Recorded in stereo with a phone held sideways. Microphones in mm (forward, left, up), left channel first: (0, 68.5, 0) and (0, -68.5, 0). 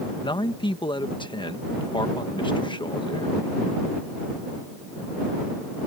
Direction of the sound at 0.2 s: 35° left (ahead or behind).